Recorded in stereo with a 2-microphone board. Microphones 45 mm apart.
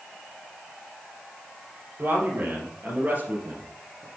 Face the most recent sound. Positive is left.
turn(degrees=-30)  # may be behind; listen again after turning